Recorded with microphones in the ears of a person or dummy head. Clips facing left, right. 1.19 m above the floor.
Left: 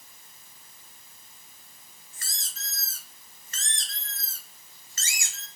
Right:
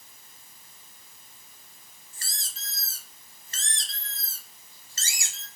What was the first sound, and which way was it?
A squeak, 30° right (ahead or behind).